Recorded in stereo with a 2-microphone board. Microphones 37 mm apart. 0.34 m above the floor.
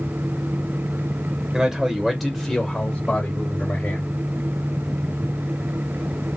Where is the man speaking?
20° right (ahead or behind), 1.0 m; by 4.1 s 45° left (ahead or behind), 1.3 m.